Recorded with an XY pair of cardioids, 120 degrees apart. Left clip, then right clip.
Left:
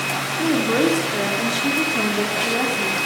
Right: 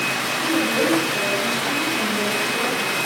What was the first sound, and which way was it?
A woman speaking, 60° left.